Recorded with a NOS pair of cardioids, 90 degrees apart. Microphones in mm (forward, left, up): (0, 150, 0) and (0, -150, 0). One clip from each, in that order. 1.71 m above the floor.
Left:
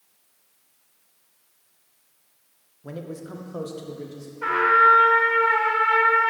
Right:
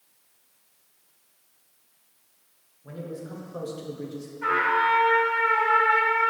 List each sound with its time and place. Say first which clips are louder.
2.8 s a man speaking: left 1 dB; 45° left, 0.9 m; by 4.3 s straight ahead, 1.2 m
4.4 s a trumpet: left 6 dB; 30° left, 1.5 m